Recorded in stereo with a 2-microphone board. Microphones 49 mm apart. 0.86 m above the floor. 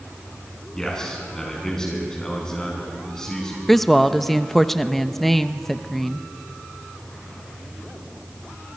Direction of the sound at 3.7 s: 5° left (ahead or behind).